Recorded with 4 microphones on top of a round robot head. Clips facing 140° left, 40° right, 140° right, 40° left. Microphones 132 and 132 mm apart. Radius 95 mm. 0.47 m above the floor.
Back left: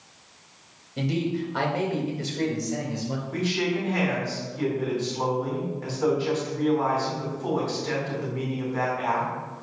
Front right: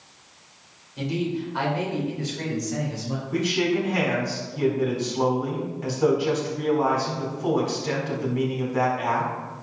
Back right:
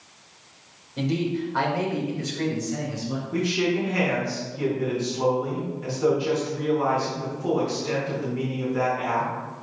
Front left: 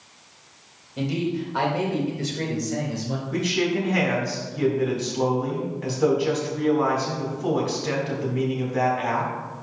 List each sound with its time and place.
1.0 s a man speaking: 125° left, 3.5 m; by 3.2 s 70° left, 4 m
3.3 s a man speaking: 35° left, 4 m